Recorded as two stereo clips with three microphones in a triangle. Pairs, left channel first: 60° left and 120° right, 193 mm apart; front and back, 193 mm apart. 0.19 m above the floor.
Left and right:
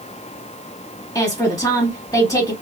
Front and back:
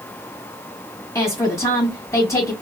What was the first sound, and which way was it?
A woman speaking, 35° left.